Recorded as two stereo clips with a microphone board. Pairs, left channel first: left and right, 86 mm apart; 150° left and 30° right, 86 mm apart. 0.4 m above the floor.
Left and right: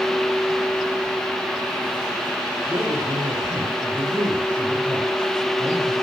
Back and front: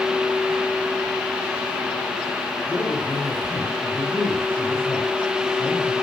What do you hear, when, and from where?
2.7 s a man speaking: 140° right, 6.5 m